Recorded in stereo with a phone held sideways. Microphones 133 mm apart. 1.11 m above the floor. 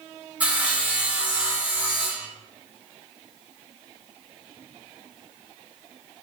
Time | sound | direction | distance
0.4 | sawing | 10° right (ahead or behind) | 0.8 m